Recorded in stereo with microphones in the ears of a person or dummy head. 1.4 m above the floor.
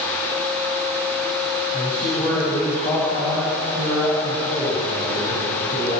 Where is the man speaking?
15° left (ahead or behind), 9 m; by 6.0 s 45° left (ahead or behind), 10 m.